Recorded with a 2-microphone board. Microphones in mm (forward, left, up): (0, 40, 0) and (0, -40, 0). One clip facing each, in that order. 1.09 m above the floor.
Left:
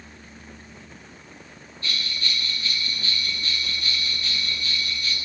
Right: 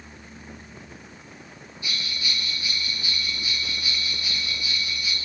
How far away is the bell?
About 8.5 m.